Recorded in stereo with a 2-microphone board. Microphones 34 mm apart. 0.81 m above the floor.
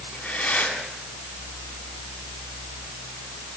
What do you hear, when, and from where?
0.1 s breathing: 30° left (ahead or behind), 7.5 m